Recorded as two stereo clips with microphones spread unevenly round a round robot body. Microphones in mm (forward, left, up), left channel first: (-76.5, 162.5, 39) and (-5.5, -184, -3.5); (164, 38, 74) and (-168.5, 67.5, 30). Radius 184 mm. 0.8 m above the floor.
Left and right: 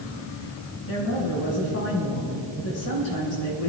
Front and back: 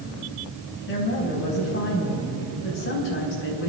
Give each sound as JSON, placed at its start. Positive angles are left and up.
{"t": 0.9, "sound": "a woman speaking", "azimuth_deg": 45, "distance_m": 5.0}